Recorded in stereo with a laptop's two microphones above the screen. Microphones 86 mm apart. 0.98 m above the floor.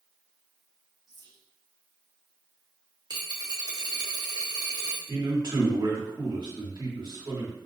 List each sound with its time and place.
1.1 s whispering: 55° right (ahead or behind), 1.5 m
3.1 s a dropped coin: 50° right (ahead or behind), 0.7 m
5.1 s a man speaking: 65° right (ahead or behind), 1.5 m